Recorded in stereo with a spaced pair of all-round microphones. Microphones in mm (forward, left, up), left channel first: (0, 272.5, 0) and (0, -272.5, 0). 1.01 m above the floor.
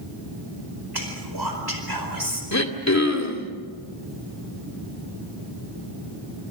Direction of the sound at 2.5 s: 30° left (ahead or behind).